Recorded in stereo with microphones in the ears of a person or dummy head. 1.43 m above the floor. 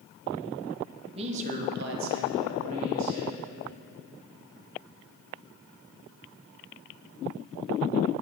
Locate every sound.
1.1 s a man speaking: 30° right (ahead or behind), 1.2 m; by 3.4 s 60° right (ahead or behind), 1.9 m